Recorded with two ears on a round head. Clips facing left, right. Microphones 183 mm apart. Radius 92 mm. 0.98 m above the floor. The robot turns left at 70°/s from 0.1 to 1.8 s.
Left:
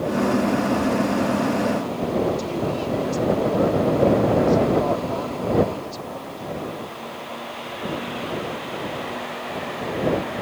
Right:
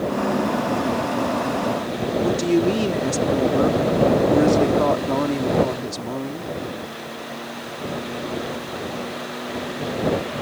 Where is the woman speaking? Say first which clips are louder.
Right 5 dB; 70° right (ahead or behind).